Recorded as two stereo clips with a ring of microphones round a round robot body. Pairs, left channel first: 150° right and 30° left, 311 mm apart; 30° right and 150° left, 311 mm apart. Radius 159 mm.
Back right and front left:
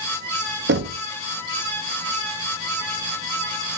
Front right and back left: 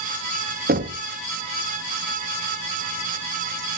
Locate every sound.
0.7 s knocking: 85° left, 0.7 m